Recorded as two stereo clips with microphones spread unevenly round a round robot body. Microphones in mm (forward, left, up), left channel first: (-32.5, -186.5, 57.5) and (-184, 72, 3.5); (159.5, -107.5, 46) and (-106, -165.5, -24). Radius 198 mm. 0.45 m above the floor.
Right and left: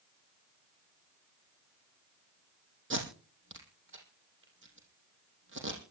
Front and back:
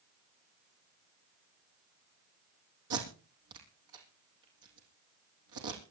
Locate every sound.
2.9 s tape being pulled: 170° left, 4.5 m